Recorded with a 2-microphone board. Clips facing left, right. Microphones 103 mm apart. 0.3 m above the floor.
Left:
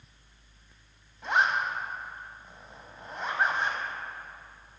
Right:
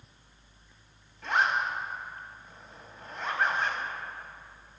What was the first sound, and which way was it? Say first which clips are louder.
A zipper: left 1 dB; 20° left (ahead or behind).